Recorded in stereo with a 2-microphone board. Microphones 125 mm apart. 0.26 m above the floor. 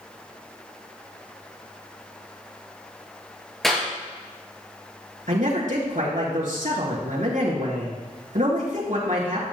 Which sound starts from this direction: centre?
A clap, at 3.6 s.